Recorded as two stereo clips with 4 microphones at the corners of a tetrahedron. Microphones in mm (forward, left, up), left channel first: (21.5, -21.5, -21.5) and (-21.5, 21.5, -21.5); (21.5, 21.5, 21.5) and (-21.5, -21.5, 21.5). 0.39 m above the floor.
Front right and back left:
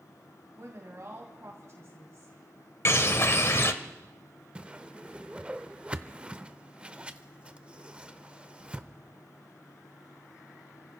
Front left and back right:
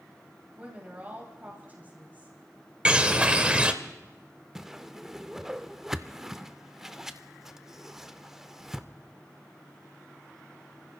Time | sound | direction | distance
0.6 | a woman speaking | 165° left | 2.5 m
2.9 | a bird | 70° right | 0.8 m
4.5 | a whoosh | 155° left | 0.5 m